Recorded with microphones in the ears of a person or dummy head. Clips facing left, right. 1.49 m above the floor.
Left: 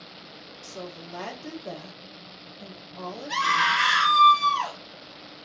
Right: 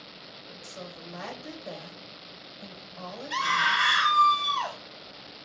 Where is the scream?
85° left, 2.5 m.